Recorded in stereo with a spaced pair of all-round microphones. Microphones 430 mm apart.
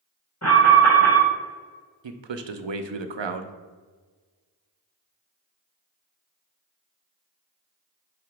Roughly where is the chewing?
I don't hear chewing.